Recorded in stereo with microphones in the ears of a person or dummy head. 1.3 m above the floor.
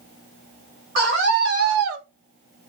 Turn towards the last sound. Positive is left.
turn(degrees=-35)  # may be behind; listen again after turning